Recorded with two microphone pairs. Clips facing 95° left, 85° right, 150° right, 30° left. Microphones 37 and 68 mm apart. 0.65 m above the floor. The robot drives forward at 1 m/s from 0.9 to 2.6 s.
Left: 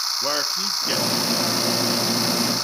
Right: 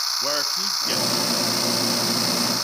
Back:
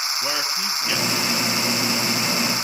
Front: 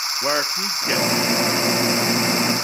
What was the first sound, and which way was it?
A man speaking, 20° left.